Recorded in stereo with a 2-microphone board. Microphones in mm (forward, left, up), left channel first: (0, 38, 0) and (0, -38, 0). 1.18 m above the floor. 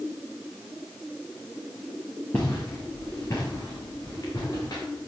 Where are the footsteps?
20° left (ahead or behind), 5.5 m; by 4.8 s 45° left (ahead or behind), 7 m.